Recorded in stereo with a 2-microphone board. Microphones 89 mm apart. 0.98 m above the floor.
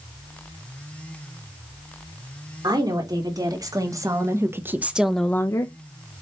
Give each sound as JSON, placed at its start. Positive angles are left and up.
{"t": 2.6, "sound": "a woman speaking", "side_deg": -50, "distance_m": 3.0}